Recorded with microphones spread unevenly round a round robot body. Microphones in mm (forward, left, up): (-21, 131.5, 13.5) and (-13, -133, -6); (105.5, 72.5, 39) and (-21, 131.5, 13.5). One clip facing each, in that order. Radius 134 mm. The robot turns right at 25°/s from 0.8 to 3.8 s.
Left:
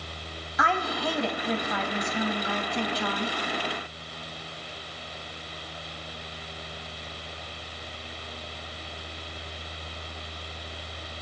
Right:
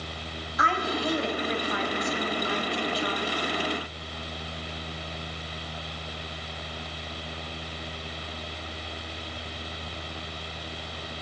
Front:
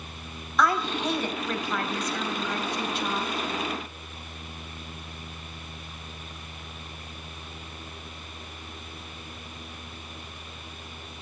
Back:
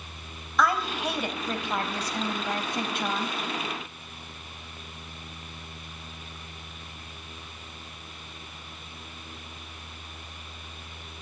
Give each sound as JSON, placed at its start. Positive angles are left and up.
{"t": 0.6, "sound": "a woman speaking", "azimuth_deg": 65, "distance_m": 3.5}